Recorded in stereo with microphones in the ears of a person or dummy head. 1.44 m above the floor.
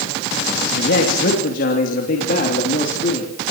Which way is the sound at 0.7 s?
65° left (ahead or behind).